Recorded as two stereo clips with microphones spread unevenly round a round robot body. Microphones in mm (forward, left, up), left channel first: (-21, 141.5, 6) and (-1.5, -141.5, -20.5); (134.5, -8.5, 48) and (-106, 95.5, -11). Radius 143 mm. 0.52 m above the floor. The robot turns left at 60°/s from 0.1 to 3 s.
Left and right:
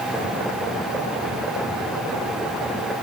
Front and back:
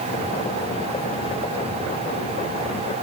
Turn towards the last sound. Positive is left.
No sound to turn to.